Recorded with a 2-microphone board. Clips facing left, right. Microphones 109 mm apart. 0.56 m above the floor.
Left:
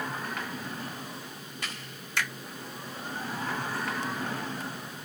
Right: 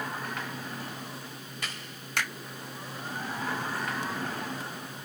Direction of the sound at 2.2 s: 65° right (ahead or behind).